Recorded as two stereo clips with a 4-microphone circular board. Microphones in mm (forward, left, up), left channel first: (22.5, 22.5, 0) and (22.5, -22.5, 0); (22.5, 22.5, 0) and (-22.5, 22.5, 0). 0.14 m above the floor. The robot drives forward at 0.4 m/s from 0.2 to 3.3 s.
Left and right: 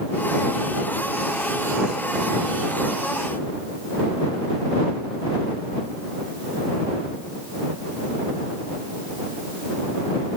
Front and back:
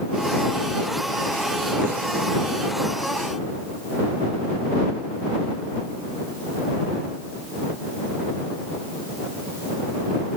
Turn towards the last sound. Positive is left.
No sound to turn to.